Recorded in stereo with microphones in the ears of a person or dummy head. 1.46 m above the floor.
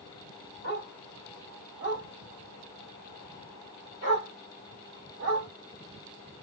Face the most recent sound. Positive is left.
turn(degrees=-30)  # may be behind; listen again after turning